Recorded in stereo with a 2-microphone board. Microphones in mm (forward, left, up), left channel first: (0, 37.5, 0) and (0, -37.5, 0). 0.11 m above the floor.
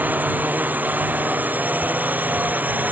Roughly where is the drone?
Right.